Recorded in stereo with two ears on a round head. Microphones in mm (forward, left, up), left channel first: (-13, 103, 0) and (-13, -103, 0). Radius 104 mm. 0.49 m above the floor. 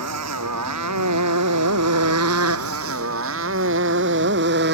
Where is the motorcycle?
90° right; by 4.8 s 50° right (ahead or behind).